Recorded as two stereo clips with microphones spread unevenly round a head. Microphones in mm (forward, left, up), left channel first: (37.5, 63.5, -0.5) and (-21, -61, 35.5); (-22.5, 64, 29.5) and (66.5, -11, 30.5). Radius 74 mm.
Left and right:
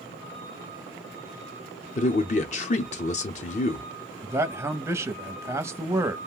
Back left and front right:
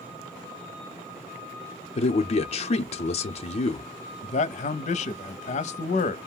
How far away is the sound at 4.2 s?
About 0.5 m.